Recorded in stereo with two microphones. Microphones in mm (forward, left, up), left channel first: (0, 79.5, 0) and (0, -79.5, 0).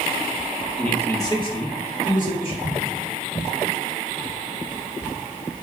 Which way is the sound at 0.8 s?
5° left (ahead or behind).